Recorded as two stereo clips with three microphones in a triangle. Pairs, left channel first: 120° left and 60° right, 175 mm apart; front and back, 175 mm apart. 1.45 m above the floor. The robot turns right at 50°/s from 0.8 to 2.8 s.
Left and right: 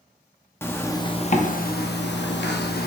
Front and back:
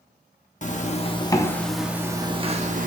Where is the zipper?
40° left, 0.8 m; by 2.9 s 140° left, 0.8 m.